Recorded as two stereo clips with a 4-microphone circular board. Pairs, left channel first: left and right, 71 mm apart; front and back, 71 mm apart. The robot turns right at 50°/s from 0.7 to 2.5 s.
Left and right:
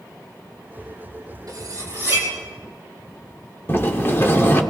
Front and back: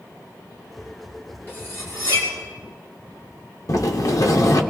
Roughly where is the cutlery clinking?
Ahead right.